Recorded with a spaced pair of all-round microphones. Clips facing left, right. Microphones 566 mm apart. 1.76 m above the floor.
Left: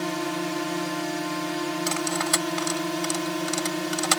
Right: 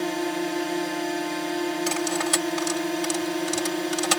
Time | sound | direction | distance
0.0 | a drone | 30° left (ahead or behind) | ?
1.9 | cutlery clinking | 55° right (ahead or behind) | ?